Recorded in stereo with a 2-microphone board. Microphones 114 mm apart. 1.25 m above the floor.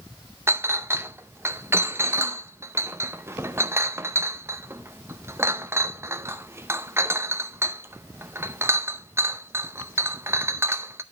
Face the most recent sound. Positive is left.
turn(degrees=-20)  # may be behind; listen again after turning